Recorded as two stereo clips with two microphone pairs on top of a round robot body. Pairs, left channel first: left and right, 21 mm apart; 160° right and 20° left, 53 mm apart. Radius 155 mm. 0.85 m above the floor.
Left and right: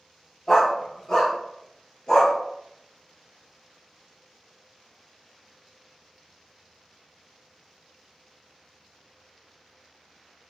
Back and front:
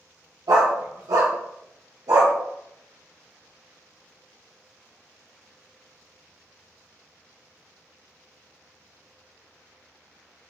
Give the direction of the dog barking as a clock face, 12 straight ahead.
11 o'clock.